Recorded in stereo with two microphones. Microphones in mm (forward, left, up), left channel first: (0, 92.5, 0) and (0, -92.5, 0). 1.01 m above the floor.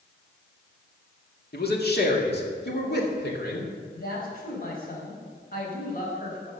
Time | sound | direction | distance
1.5 | a man speaking | 60° left (ahead or behind) | 1.9 m
3.9 | a woman speaking | 50° left (ahead or behind) | 4.5 m